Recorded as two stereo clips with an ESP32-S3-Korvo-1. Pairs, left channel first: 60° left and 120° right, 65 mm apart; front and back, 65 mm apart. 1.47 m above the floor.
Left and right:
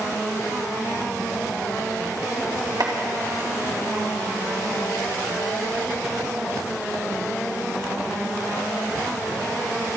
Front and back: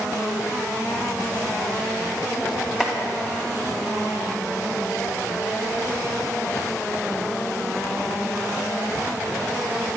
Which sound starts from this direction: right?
Chopping, at 2.8 s.